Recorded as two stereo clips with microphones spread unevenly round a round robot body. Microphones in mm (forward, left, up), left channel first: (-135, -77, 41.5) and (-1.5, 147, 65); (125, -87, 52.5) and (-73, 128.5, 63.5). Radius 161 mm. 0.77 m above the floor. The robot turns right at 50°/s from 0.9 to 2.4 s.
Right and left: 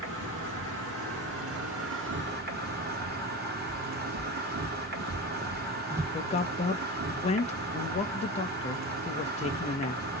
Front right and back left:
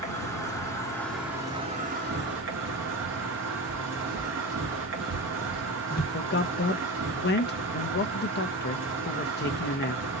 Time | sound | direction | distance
0.0 | an insect | 25° left | 2.5 m
3.7 | footsteps | 65° left | 1.8 m
6.1 | a man speaking | 75° right | 0.6 m